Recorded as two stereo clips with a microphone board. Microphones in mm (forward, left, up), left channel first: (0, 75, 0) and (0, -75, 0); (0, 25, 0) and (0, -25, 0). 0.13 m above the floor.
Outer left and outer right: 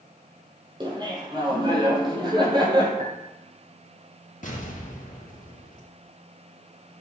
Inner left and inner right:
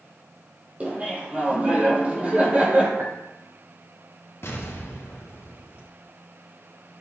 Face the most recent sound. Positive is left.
turn(degrees=60)  # may be behind; listen again after turning